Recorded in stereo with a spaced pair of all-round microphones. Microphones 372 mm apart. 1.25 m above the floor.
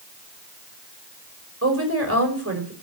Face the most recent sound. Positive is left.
turn(degrees=-40)  # may be behind; listen again after turning